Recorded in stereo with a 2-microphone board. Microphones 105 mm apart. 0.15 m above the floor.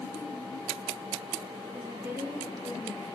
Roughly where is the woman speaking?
Right.